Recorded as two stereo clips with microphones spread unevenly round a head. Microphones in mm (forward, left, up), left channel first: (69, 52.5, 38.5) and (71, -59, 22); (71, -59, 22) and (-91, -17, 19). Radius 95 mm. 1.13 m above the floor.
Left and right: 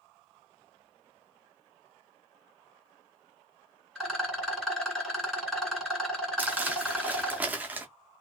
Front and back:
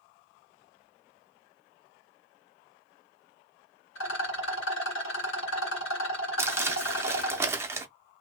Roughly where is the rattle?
Ahead.